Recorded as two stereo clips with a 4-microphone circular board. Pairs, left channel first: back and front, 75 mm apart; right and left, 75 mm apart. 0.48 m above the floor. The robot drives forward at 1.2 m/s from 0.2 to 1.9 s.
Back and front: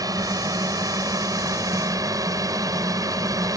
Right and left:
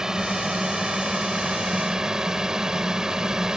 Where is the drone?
10° left.